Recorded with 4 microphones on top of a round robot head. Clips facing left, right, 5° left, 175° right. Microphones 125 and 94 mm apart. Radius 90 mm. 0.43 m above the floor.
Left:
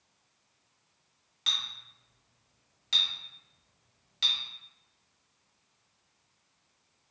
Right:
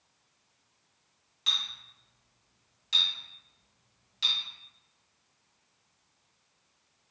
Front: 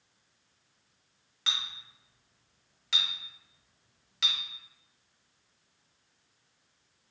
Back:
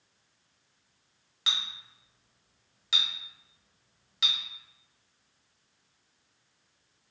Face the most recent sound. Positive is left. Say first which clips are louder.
# right 1 dB, back 1 dB
turn(degrees=110)